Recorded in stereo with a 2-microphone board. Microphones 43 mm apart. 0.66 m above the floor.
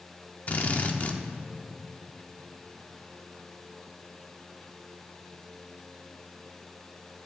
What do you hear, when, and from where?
0.5 s a drill: 35° left (ahead or behind), 0.8 m